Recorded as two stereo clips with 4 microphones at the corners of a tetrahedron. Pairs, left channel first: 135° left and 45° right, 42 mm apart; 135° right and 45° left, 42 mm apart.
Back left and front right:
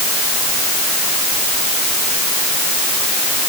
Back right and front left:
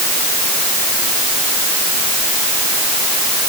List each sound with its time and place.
Only background noise.